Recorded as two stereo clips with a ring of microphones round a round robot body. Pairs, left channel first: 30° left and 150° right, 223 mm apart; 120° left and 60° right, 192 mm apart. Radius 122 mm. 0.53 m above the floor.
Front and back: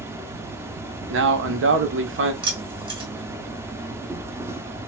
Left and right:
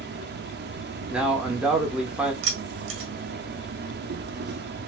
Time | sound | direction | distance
0.0 | an insect | 75° right | 0.7 m
1.1 | a man speaking | 145° right | 1.2 m
2.4 | keys jangling | 80° right | 2 m